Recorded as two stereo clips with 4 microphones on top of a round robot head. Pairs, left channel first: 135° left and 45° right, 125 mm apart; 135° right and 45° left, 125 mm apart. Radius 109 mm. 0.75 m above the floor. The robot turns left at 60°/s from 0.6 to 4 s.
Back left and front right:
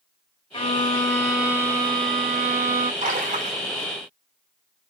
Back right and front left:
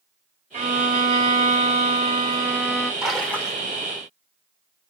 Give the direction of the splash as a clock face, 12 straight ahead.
1 o'clock.